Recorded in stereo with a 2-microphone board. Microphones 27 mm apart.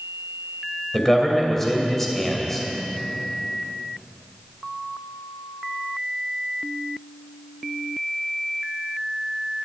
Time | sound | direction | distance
0.9 | a man speaking | 15° left (ahead or behind) | 2.5 m